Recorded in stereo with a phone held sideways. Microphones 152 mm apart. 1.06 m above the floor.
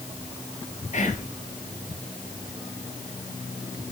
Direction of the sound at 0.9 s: 50° left (ahead or behind).